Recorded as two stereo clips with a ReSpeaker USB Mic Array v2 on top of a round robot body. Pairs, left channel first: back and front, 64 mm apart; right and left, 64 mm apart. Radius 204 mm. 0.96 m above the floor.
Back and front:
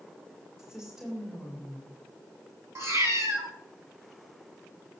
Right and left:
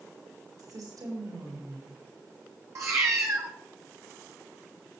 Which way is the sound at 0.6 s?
80° left.